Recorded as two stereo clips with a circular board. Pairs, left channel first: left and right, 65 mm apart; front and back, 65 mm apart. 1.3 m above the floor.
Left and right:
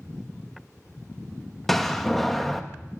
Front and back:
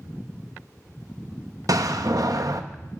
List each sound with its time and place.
1.7 s a door slam: 175° left, 1.0 m